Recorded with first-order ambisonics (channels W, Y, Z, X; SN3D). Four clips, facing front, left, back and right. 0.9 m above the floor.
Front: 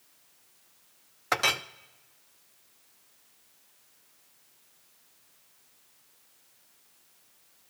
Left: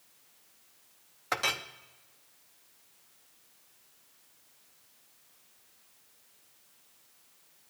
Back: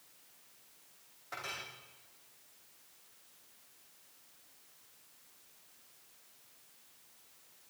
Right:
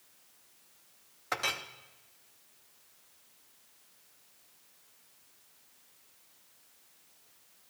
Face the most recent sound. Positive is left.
turn(degrees=10)